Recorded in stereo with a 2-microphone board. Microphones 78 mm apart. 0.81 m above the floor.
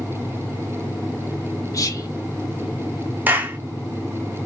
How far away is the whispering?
About 0.5 m.